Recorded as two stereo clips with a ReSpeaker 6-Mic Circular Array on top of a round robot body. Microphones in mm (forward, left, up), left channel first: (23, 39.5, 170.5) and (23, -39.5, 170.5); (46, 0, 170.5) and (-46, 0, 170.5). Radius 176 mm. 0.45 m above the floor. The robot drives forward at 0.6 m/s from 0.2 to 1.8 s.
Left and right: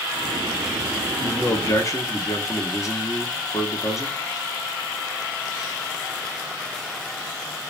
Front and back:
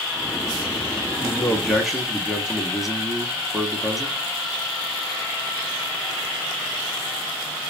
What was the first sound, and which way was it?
A man speaking, 65° left.